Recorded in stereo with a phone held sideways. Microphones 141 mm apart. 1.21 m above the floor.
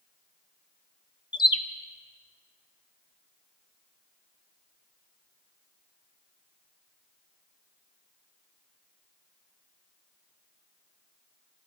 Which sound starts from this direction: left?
A bird, at 1.3 s.